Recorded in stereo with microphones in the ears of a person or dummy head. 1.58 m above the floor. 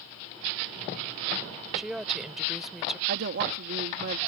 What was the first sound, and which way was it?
A woman speaking, centre (ahead or behind).